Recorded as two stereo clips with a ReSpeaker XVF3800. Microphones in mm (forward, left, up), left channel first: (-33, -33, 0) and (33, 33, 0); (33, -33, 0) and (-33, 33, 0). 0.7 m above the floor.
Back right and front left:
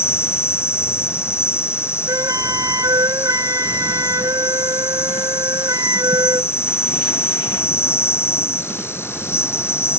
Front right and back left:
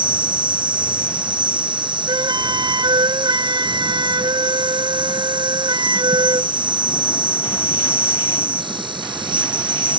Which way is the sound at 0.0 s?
165° left.